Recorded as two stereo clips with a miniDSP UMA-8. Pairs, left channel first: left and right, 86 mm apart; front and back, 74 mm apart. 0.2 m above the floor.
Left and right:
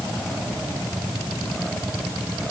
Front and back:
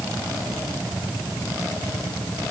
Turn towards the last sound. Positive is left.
No sound to turn to.